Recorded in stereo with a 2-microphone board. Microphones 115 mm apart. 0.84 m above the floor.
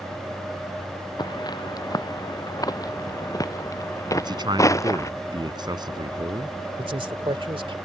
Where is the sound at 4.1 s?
40° right (ahead or behind).